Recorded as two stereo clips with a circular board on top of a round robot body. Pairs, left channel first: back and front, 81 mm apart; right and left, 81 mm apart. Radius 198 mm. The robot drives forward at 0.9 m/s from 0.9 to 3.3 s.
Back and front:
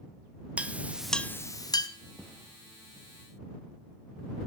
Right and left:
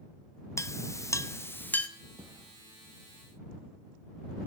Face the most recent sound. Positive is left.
turn(degrees=135)